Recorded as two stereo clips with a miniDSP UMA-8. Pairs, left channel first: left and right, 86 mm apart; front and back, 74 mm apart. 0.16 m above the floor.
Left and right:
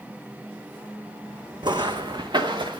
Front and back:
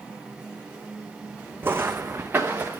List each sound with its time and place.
1.6 s footsteps: 120° right, 0.7 m; by 2.8 s 115° right, 1.5 m